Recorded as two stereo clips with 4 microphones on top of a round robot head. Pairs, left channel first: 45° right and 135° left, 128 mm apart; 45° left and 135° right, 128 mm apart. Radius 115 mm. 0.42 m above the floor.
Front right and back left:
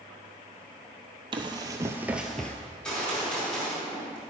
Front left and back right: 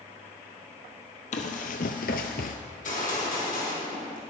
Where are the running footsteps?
80° left, 0.9 m; by 2.6 s 35° left, 0.6 m.